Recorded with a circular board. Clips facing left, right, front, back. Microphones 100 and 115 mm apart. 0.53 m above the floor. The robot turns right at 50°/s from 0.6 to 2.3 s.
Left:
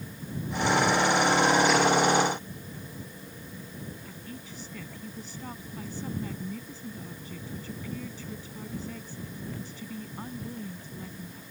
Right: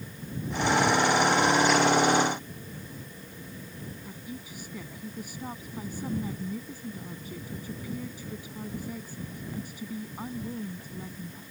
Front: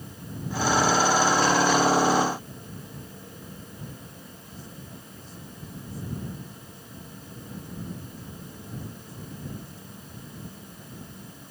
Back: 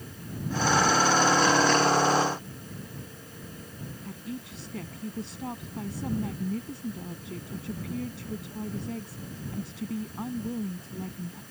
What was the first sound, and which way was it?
A woman speaking, 170° right.